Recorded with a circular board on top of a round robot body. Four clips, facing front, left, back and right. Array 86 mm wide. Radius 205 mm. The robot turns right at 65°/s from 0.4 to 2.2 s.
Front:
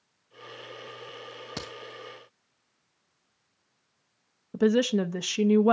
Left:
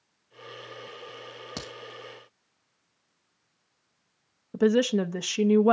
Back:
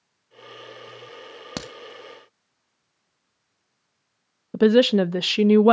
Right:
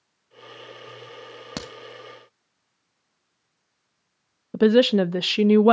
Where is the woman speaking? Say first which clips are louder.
Right 6 dB, back 7 dB; 135° right, 0.6 m.